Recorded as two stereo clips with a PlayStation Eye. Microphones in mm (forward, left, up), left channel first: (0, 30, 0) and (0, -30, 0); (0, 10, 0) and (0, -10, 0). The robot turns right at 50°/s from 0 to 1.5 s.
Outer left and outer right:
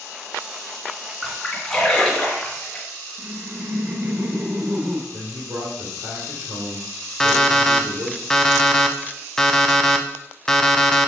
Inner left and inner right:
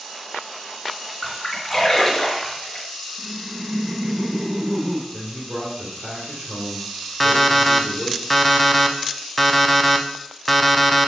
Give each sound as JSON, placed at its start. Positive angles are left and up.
{"t": 1.2, "sound": "a splash", "side_deg": -5, "distance_m": 2.0}
{"t": 3.2, "sound": "laughter", "side_deg": -30, "distance_m": 1.4}
{"t": 5.1, "sound": "a man speaking", "side_deg": -70, "distance_m": 2.5}
{"t": 7.2, "sound": "an alarm clock", "side_deg": 10, "distance_m": 0.6}